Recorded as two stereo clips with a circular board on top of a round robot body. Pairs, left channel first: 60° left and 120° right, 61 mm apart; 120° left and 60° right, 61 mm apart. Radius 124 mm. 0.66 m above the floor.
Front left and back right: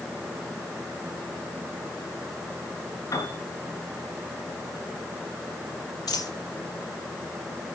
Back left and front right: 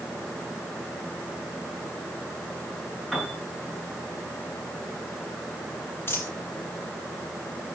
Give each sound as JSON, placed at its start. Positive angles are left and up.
{"t": 3.1, "sound": "a piano", "azimuth_deg": 30, "distance_m": 6.5}
{"t": 6.1, "sound": "a dropped coin", "azimuth_deg": 65, "distance_m": 6.0}